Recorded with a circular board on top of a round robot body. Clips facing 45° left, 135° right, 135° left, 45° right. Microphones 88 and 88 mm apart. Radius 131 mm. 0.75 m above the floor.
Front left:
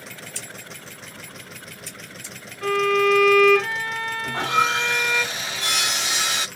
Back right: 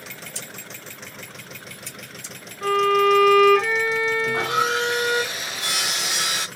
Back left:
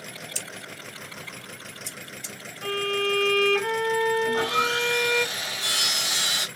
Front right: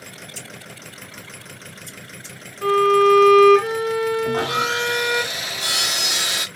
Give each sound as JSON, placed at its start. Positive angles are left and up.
{"t": 0.3, "sound": "scissors", "azimuth_deg": 155, "distance_m": 0.8}
{"t": 2.6, "sound": "a violin", "azimuth_deg": -60, "distance_m": 0.9}
{"t": 4.2, "sound": "sawing", "azimuth_deg": -55, "distance_m": 0.7}